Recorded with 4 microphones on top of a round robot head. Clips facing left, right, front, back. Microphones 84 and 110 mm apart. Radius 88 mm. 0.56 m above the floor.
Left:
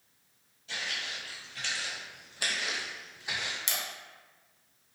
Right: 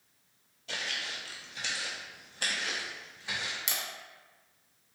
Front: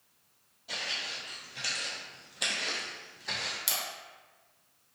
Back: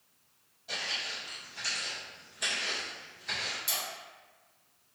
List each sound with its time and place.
0.7 s footsteps: 90° right, 0.8 m; by 3.6 s 20° left, 1.6 m
3.7 s a camera shutter: 5° right, 0.8 m